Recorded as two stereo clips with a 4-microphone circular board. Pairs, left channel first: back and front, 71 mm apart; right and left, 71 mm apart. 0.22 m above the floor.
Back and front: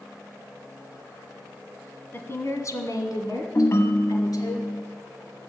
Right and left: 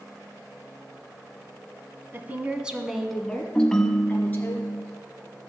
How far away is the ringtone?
About 0.8 m.